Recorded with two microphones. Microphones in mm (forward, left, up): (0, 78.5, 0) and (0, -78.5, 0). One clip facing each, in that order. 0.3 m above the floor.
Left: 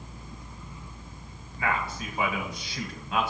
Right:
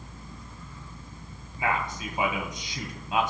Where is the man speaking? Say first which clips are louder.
Right 1 dB; 20° right (ahead or behind), 1.9 m.